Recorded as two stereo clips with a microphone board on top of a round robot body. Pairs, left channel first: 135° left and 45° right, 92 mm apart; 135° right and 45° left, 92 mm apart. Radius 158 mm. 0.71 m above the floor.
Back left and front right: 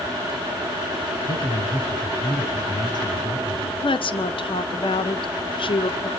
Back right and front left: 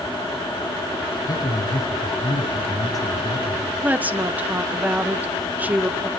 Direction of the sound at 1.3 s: 175° left.